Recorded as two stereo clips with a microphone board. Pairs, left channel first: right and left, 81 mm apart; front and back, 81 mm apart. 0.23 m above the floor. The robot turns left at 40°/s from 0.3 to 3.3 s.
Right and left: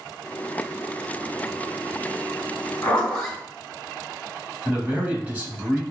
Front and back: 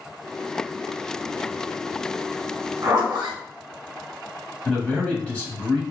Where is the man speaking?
50° left, 1.2 m.